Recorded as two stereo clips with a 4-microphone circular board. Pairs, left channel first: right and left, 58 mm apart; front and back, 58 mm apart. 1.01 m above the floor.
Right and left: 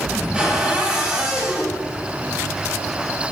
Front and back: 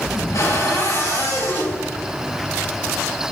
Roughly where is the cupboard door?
Ahead.